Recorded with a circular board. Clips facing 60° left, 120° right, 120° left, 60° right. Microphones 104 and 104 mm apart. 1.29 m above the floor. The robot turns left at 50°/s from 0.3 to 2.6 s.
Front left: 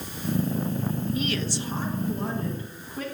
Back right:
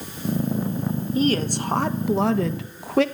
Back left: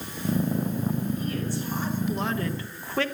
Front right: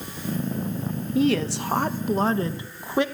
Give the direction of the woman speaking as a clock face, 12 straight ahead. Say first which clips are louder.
Back right 7 dB, front right 8 dB; 2 o'clock.